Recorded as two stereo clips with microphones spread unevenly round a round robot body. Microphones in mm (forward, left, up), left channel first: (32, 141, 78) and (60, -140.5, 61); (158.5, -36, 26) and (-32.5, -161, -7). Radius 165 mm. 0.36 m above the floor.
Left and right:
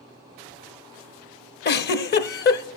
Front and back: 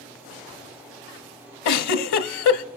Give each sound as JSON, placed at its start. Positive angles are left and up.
{"t": 1.6, "sound": "a giggle", "azimuth_deg": 35, "distance_m": 0.7}